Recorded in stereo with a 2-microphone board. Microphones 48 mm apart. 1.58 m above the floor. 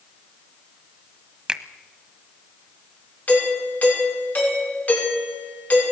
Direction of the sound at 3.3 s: 35° left (ahead or behind).